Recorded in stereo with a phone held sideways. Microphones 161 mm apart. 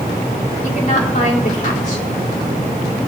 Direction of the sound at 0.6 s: 60° left (ahead or behind).